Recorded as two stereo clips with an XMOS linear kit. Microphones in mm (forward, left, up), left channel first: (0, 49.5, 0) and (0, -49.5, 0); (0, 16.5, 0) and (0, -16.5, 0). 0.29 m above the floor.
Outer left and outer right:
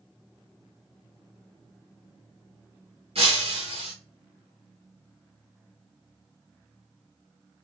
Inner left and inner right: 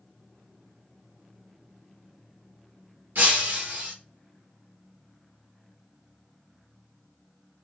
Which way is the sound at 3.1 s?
70° right (ahead or behind).